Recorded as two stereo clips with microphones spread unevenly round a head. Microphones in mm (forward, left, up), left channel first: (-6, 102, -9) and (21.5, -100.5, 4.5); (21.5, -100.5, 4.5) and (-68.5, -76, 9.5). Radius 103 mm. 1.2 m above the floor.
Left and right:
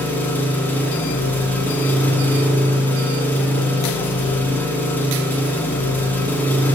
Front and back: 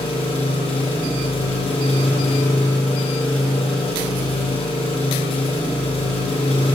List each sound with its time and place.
0.0 s an engine running: 20° left, 0.8 m